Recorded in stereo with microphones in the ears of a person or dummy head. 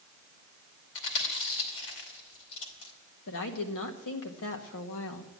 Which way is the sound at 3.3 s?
70° left (ahead or behind).